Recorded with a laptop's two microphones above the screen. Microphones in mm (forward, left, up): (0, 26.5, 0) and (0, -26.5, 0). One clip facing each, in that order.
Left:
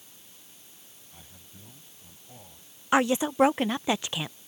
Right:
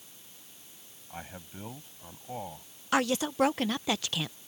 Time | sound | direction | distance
1.1 | a man speaking | 65° right (ahead or behind) | ?
2.9 | a woman speaking | 20° left (ahead or behind) | ?